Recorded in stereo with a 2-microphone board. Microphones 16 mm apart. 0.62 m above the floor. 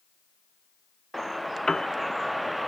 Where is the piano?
55° left (ahead or behind), 0.6 m.